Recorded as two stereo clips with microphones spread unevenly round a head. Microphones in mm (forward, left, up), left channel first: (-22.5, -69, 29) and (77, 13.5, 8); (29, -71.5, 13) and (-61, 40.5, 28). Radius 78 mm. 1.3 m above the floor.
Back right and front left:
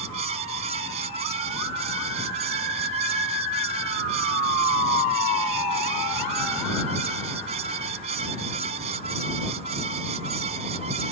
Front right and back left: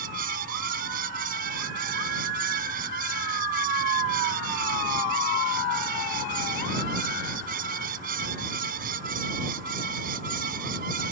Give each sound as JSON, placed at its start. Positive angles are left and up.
{"t": 0.0, "sound": "a fan", "azimuth_deg": 95}